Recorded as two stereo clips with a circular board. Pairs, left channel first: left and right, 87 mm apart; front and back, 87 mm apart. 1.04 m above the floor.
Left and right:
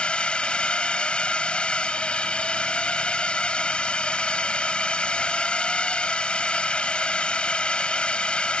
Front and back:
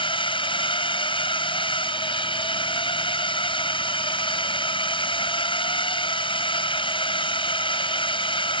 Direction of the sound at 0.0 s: 15° left.